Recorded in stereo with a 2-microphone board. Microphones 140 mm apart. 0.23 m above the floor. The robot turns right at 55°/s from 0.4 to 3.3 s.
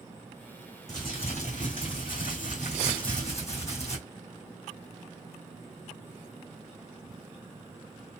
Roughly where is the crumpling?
Ahead left.